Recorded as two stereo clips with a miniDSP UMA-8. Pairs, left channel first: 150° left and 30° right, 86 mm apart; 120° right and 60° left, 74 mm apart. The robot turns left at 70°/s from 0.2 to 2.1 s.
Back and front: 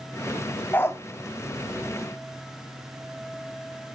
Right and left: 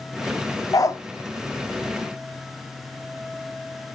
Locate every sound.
0.7 s a dog barking: 145° right, 0.7 m; by 1.0 s 165° right, 0.7 m